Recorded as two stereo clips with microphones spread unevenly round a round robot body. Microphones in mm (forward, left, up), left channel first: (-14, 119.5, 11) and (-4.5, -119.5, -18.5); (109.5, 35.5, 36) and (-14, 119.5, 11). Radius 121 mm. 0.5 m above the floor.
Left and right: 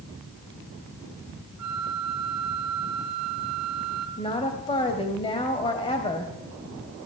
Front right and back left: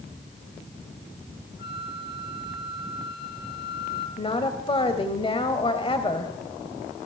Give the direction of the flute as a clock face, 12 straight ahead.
2 o'clock.